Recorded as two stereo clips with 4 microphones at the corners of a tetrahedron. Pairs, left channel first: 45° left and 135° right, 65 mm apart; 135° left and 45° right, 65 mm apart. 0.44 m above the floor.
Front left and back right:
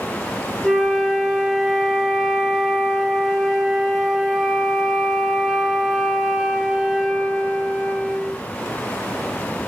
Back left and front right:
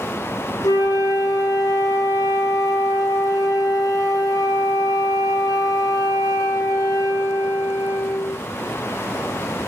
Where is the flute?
130° left, 2 m.